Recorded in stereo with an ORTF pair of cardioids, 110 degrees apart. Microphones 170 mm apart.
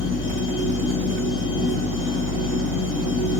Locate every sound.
0.0 s a machine running: 70° left, 3 m